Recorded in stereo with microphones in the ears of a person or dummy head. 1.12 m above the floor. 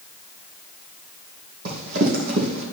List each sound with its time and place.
1.6 s running footsteps: 55° right (ahead or behind), 3 m